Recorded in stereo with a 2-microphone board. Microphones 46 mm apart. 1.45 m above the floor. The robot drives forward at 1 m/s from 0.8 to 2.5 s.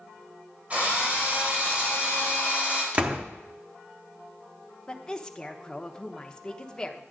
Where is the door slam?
25° right (ahead or behind), 0.9 m.